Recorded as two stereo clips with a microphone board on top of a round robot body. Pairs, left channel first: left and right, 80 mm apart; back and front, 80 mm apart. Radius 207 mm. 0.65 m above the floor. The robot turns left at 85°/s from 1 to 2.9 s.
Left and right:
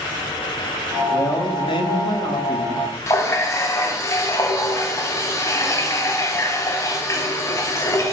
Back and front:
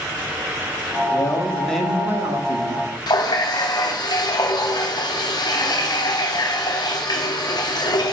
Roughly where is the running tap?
Behind left.